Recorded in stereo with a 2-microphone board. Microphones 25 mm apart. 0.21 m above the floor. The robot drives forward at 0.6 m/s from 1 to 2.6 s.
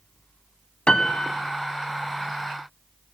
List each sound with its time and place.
0.9 s a piano: 40° left (ahead or behind), 0.5 m; by 1.5 s 35° left (ahead or behind), 0.6 m